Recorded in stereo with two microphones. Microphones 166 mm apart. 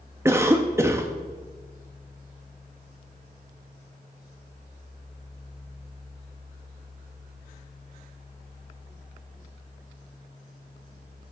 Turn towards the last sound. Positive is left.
turn(degrees=-15)  # may be behind; listen again after turning